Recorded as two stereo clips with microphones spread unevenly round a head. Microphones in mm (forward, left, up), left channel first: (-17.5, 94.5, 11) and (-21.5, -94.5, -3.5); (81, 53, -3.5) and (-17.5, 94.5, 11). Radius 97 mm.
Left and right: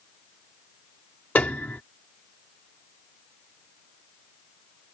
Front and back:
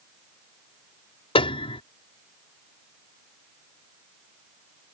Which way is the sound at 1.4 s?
5° left.